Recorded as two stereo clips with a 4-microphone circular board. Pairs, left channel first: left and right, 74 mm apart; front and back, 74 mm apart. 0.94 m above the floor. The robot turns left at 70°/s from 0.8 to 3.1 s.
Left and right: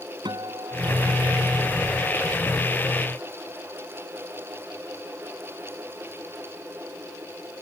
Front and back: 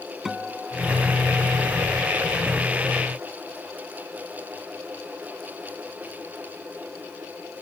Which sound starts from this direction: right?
A guitar, at 0.2 s.